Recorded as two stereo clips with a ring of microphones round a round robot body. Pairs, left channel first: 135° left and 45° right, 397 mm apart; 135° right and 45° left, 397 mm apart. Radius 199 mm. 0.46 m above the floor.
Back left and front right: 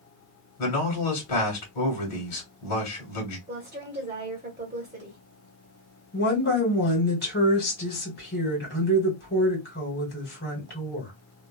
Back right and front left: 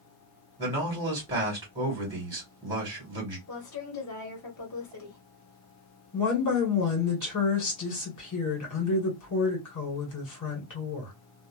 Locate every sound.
0.6 s a man speaking: 125° left, 1.6 m
3.5 s a woman speaking: 110° right, 1.3 m
6.1 s a woman speaking: 165° right, 1.9 m